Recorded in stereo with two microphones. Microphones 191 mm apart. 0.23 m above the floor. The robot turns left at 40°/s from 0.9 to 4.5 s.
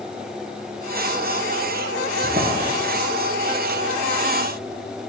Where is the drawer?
45° right (ahead or behind), 2.5 m; by 2.7 s 65° right (ahead or behind), 2.5 m.